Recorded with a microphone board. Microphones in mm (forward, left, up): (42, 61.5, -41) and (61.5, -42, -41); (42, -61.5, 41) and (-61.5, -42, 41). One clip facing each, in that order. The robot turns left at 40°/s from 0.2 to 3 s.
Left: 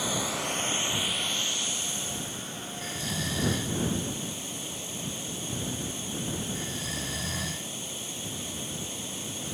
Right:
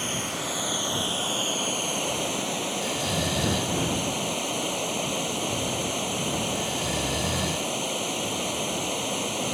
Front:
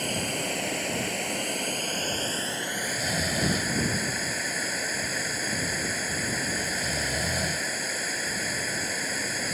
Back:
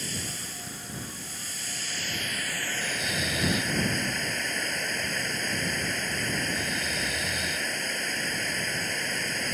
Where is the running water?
20° left; by 9.5 s 95° right.